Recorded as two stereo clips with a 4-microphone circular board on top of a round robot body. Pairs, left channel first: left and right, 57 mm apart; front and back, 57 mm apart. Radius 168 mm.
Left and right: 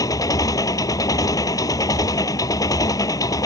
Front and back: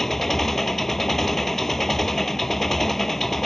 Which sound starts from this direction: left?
An engine running, at 0.0 s.